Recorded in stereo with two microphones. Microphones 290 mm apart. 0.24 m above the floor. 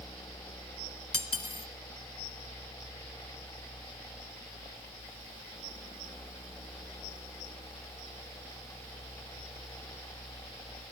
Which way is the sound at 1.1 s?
50° left (ahead or behind).